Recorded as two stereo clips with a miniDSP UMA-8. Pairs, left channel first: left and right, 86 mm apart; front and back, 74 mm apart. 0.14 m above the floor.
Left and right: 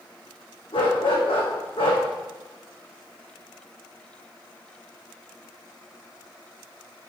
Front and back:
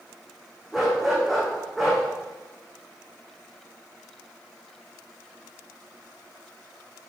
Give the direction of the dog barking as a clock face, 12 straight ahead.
9 o'clock.